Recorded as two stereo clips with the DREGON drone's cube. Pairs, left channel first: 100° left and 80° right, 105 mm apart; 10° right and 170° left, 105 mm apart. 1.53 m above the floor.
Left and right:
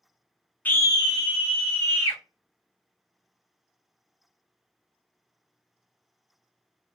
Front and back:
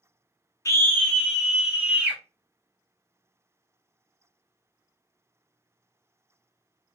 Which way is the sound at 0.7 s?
30° left.